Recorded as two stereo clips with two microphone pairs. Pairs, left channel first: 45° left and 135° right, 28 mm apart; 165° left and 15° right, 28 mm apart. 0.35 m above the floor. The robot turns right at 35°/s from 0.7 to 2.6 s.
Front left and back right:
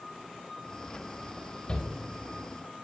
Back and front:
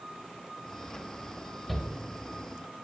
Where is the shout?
75° left, 1.6 m; by 1.9 s 80° left, 1.6 m.